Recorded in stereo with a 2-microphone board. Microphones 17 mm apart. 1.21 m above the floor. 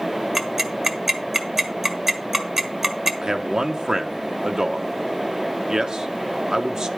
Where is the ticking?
25° right (ahead or behind), 1.5 m.